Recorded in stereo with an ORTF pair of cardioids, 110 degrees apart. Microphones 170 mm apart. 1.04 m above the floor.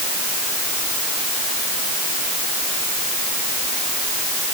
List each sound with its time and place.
Only background noise.